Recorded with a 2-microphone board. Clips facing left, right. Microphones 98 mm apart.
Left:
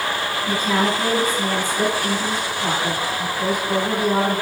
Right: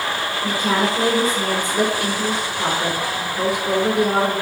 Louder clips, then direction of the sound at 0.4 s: Even; 80° right.